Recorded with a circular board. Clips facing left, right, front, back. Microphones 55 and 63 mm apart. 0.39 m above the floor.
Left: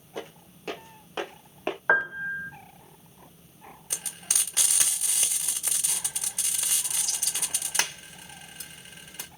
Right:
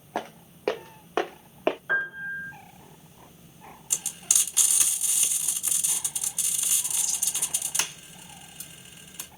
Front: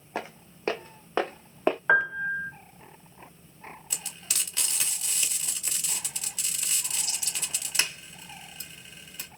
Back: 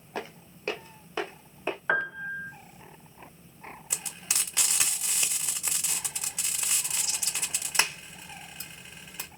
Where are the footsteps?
70° right, 1.3 m; by 1.8 s 25° right, 1.6 m.